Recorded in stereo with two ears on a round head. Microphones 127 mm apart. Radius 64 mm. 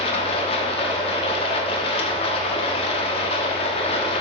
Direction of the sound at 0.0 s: 40° left (ahead or behind).